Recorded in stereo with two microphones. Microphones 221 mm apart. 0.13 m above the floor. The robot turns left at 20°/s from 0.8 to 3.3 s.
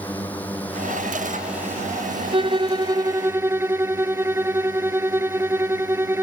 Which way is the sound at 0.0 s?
10° left.